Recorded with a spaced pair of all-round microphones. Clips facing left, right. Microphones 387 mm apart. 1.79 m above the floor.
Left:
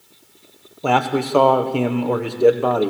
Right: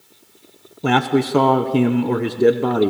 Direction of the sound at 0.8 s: 30° right (ahead or behind).